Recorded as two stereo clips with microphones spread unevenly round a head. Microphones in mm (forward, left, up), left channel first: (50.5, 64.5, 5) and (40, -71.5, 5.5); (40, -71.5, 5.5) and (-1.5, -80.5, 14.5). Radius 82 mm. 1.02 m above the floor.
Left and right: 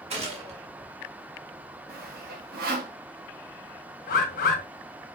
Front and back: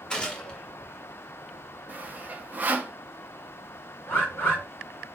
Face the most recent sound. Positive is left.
turn(degrees=65)